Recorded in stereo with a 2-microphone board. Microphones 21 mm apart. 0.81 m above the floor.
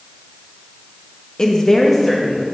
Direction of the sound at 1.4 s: 30° left (ahead or behind).